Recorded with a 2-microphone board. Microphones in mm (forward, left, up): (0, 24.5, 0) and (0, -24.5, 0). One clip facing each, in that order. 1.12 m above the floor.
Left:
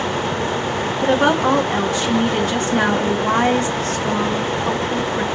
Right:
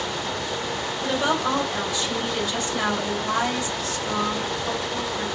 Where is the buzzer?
I don't hear a buzzer.